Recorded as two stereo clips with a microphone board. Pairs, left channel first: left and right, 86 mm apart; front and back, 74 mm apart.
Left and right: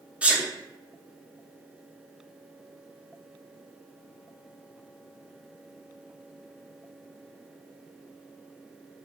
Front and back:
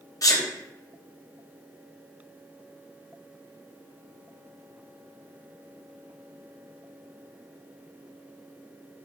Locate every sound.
0.2 s a sneeze: 20° right, 0.8 m